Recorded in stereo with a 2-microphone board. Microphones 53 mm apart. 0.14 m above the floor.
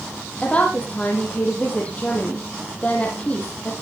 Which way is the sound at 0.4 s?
25° left (ahead or behind).